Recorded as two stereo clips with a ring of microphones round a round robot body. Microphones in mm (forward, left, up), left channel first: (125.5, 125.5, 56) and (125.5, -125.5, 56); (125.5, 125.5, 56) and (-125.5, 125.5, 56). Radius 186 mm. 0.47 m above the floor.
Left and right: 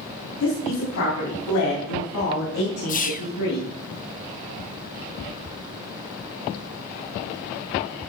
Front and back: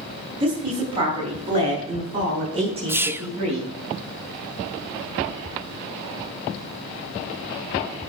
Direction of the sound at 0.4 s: 110° left.